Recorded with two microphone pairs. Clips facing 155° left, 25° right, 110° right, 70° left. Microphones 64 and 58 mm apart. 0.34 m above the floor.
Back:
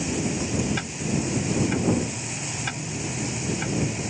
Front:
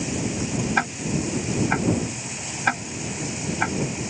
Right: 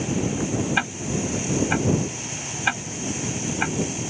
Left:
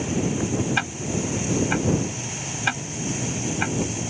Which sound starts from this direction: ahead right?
Ticking, at 0.8 s.